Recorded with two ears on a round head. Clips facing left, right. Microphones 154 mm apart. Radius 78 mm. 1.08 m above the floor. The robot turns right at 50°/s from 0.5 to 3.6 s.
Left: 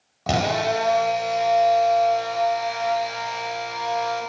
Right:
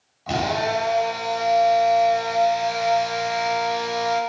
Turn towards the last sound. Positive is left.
turn(degrees=-90)